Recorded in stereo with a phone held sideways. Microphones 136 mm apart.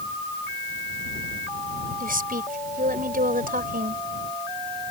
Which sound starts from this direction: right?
A woman speaking, at 2.0 s.